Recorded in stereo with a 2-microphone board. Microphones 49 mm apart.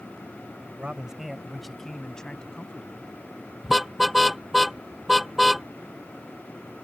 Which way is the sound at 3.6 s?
5° right (ahead or behind).